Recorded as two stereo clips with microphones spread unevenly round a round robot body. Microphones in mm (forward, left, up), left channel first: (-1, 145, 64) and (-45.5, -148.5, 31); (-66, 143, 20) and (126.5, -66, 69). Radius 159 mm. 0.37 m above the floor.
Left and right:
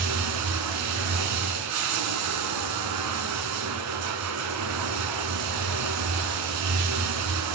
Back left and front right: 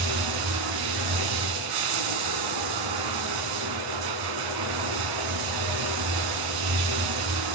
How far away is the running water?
About 0.9 m.